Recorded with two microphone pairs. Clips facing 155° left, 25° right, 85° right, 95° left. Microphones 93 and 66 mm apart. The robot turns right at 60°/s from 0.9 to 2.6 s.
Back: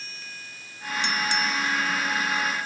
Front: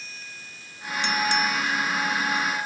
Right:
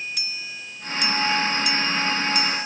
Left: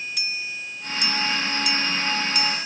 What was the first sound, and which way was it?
Only background noise.